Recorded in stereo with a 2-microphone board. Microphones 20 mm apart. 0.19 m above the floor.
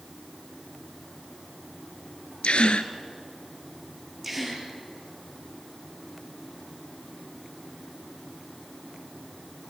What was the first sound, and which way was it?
A gasp, 70° left (ahead or behind).